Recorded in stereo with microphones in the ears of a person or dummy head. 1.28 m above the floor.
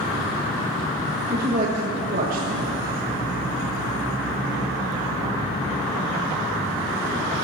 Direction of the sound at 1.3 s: 45° right (ahead or behind).